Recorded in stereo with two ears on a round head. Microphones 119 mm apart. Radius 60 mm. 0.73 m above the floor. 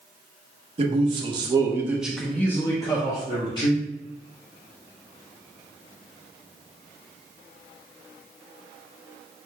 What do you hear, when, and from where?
0.8 s a man speaking: 45° right (ahead or behind), 1.0 m; by 3.8 s 40° left (ahead or behind), 1.3 m